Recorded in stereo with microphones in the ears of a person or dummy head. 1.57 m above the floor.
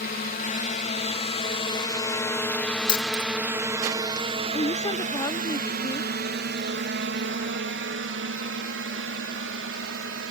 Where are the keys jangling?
25° left (ahead or behind).